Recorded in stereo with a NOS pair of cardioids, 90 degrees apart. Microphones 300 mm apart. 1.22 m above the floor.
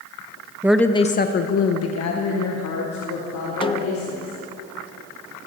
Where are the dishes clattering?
No dishes clattering in this recording.